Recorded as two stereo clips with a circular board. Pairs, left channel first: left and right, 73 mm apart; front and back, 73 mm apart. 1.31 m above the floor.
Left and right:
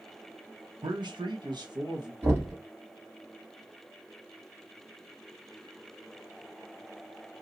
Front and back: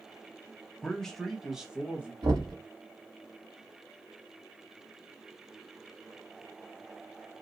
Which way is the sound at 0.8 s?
80° right.